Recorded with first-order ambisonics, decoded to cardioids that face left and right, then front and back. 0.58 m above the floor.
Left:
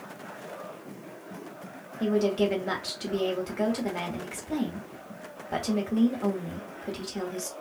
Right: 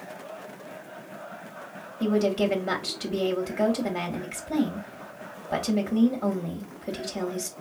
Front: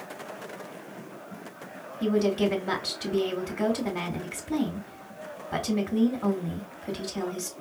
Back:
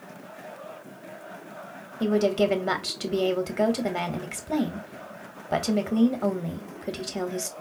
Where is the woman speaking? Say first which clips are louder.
Right 1 dB, back 2 dB; 175° right, 1.6 m.